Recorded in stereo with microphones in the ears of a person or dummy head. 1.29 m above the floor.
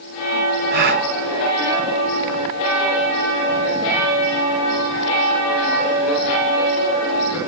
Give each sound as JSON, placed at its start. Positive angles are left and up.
{"t": 0.7, "sound": "a gasp", "side_deg": -50, "distance_m": 1.4}